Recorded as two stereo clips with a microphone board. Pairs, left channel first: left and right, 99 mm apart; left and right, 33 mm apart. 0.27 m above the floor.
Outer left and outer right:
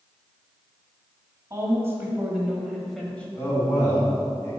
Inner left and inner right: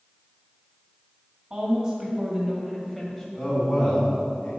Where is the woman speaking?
30° right (ahead or behind), 1.5 m; by 3.2 s 15° left (ahead or behind), 1.2 m.